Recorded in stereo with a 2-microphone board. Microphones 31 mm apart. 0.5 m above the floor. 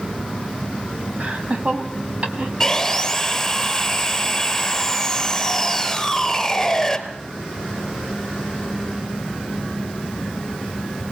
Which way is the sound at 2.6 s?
10° left (ahead or behind).